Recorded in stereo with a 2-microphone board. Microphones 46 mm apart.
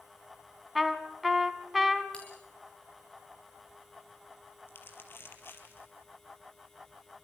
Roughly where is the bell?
Left.